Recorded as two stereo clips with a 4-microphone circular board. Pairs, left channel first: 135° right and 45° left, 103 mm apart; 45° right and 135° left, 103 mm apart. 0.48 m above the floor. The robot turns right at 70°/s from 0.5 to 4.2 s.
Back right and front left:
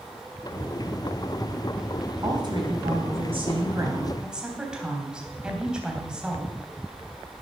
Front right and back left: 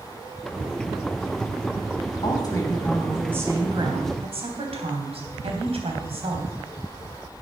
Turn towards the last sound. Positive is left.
turn(degrees=125)